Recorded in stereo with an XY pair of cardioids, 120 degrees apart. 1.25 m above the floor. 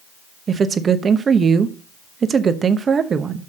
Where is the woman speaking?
35° right, 0.9 m.